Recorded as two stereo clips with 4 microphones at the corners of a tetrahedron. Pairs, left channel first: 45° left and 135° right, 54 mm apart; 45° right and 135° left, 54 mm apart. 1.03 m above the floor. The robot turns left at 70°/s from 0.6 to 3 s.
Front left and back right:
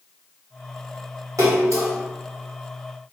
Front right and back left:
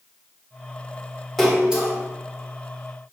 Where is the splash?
130° right, 1.4 m; by 1.9 s 170° right, 1.4 m.